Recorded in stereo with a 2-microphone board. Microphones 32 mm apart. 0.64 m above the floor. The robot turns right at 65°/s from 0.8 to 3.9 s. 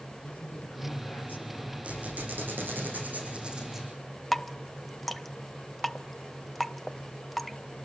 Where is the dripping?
5° left (ahead or behind), 0.7 m.